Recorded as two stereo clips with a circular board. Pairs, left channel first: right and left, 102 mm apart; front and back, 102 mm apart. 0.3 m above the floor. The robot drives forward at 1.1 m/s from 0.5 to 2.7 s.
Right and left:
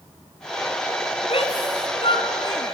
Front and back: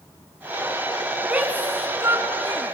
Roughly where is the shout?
Right.